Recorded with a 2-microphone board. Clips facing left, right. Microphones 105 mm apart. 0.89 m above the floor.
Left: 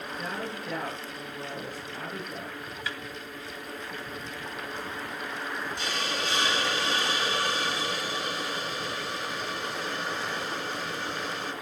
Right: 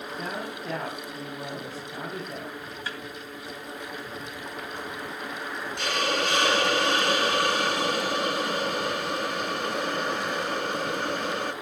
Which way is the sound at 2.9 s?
35° right (ahead or behind).